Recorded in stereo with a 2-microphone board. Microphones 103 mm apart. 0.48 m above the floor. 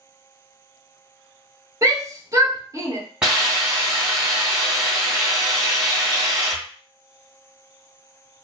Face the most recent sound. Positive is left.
turn(degrees=-10)  # may be behind; listen again after turning